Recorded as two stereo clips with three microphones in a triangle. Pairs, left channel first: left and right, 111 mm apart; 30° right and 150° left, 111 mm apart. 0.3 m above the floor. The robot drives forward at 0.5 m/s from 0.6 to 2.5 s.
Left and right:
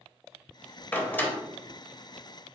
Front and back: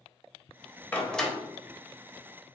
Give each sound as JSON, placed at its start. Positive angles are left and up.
{"t": 0.9, "sound": "a door slam", "azimuth_deg": 30, "distance_m": 0.6}